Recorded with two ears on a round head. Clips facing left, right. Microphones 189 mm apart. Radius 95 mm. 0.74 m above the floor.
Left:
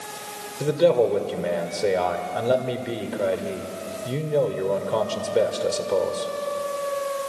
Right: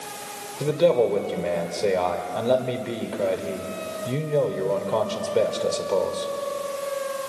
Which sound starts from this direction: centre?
A man speaking, at 0.6 s.